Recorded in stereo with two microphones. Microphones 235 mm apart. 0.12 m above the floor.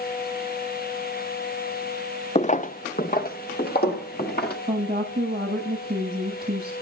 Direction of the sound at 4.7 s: 20° right (ahead or behind).